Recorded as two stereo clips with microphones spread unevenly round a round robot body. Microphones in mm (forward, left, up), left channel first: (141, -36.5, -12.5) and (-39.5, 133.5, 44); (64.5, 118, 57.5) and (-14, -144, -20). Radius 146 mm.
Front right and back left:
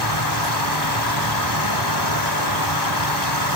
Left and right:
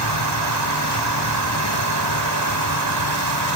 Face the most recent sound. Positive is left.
turn(degrees=-70)